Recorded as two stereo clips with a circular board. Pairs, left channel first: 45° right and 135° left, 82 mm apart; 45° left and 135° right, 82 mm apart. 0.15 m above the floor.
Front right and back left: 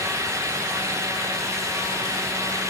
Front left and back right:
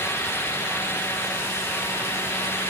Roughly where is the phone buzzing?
I don't hear a phone buzzing.